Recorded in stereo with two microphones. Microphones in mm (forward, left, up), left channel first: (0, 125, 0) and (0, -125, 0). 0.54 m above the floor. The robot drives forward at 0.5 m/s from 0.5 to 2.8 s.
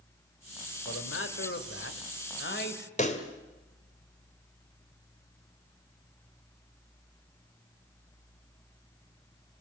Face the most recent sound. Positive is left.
turn(degrees=30)  # may be behind; listen again after turning